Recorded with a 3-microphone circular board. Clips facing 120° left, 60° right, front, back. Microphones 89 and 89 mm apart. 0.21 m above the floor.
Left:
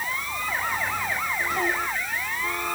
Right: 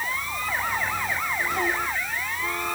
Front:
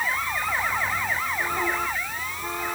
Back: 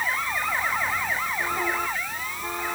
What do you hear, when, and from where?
Only background noise.